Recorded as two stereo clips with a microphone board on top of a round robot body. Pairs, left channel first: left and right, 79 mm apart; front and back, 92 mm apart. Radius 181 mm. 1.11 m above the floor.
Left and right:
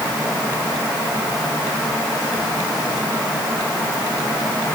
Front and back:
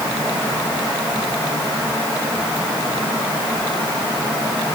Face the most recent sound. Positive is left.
No sound to turn to.